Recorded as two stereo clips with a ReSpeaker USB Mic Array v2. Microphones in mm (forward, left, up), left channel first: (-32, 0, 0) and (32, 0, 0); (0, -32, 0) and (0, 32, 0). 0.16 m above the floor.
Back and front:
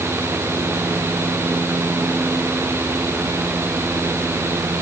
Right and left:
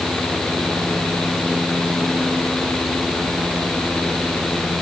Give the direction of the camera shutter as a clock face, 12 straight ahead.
I don't hear a camera shutter.